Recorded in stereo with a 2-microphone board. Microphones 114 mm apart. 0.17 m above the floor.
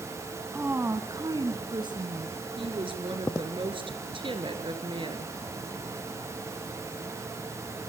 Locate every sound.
0.5 s a woman speaking: 15° right (ahead or behind), 1.3 m; by 2.4 s 45° right (ahead or behind), 3 m
2.6 s a woman speaking: 50° right (ahead or behind), 3 m